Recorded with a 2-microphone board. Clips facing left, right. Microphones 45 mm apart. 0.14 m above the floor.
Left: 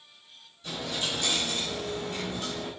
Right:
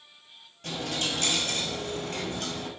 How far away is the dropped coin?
About 0.8 m.